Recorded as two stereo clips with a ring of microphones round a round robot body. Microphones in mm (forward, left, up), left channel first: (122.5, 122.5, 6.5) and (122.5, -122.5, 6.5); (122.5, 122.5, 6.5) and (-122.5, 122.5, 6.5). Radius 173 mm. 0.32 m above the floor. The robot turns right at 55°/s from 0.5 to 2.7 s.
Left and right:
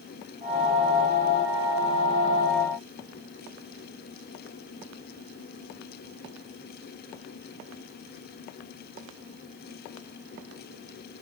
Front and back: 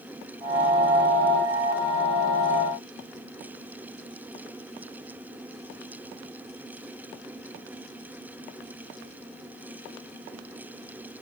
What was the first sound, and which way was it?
Only background noise.